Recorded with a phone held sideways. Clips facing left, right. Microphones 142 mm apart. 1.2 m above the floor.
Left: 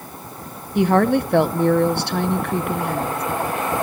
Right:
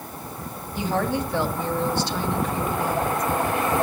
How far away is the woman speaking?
About 0.7 m.